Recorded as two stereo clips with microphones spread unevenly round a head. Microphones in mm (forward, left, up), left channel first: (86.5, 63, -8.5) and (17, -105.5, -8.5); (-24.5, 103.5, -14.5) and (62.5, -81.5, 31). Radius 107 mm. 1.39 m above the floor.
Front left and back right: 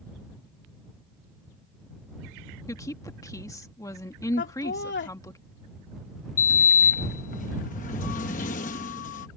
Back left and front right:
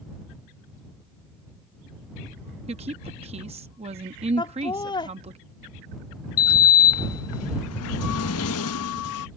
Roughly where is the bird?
I don't hear a bird.